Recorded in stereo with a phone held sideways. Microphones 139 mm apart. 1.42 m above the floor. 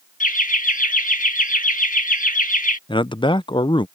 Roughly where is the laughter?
Left.